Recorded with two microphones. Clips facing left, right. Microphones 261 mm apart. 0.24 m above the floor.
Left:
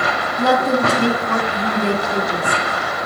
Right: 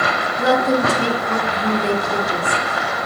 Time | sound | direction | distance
0.4 | a woman speaking | 60° left (ahead or behind) | 2.5 m